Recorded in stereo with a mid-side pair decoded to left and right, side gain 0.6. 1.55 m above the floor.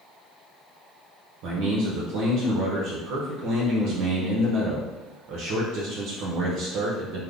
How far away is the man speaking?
About 0.8 m.